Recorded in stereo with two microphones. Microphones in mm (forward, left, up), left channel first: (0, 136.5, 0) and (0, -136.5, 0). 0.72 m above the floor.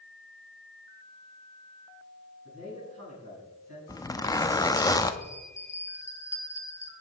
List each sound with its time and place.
2.5 s a man speaking: 60° right (ahead or behind), 5.5 m
3.9 s a zipper: 15° left (ahead or behind), 0.6 m
5.2 s a bell: 25° left (ahead or behind), 1.4 m